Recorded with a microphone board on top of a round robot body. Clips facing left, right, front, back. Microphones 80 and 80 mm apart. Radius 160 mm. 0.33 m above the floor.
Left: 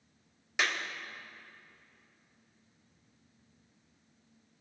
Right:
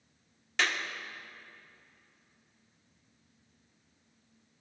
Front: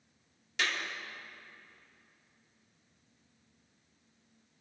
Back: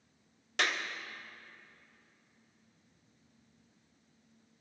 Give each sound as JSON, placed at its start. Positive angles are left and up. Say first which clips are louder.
{"t": 0.6, "sound": "a clap", "louder": "right 1 dB, back 1 dB", "azimuth_deg": 170, "distance_m": 1.6}